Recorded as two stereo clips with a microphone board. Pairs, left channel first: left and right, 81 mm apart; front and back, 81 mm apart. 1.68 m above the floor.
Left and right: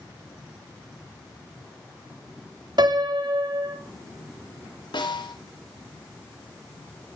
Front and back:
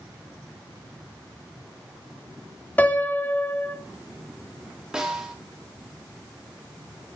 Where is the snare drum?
100° left, 5 m.